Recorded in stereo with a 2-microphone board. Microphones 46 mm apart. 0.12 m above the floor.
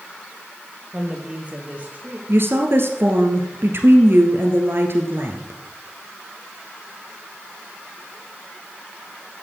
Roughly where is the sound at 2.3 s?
Right.